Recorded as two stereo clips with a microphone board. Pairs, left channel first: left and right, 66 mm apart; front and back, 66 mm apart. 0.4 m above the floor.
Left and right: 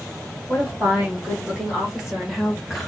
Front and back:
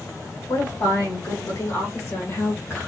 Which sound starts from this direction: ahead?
A woman speaking, at 0.5 s.